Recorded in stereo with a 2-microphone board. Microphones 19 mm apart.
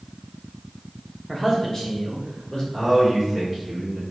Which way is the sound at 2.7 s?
15° left (ahead or behind).